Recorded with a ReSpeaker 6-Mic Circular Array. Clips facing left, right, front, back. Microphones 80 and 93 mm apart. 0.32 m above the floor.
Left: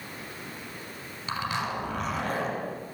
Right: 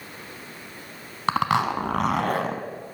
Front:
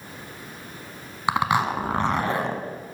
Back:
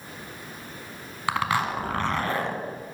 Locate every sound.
1.3 s a zipper: 70° right, 1.0 m